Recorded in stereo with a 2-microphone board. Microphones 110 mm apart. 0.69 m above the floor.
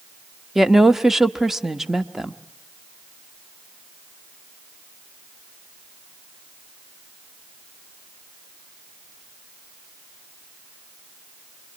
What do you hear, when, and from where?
0.6 s a woman speaking: centre (ahead or behind), 1.1 m